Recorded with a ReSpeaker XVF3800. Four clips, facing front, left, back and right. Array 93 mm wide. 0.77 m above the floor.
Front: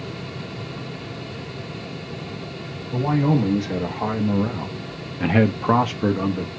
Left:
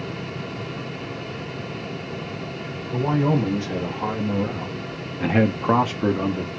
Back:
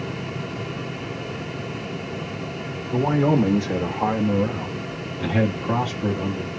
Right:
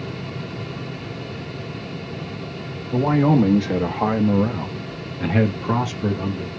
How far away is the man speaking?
About 1.3 m.